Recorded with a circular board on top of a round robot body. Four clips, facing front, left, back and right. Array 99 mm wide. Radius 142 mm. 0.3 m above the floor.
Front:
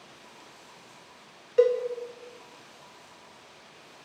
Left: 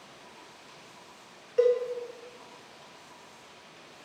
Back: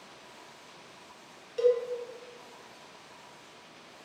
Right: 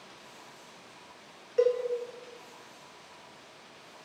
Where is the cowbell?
Straight ahead, 1.7 m.